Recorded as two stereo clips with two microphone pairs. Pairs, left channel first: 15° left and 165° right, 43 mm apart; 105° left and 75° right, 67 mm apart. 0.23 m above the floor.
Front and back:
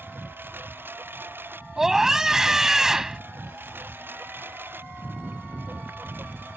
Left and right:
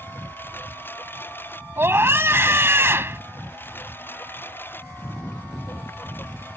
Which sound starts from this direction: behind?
A lawn mower, at 0.0 s.